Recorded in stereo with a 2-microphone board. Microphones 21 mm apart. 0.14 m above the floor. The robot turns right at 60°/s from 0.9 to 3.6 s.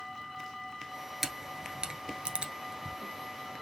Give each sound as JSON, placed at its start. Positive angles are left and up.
{"t": 1.2, "sound": "a camera shutter", "side_deg": -15, "distance_m": 0.9}